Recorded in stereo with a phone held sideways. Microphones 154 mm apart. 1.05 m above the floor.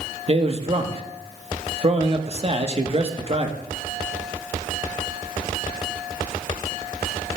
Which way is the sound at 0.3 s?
40° right (ahead or behind).